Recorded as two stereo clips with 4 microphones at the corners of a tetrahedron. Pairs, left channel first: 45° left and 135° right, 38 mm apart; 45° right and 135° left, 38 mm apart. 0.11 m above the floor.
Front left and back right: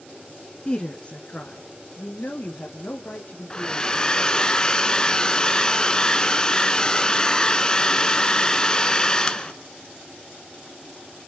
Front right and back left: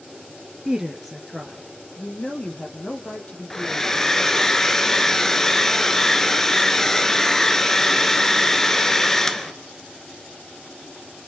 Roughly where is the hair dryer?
Ahead.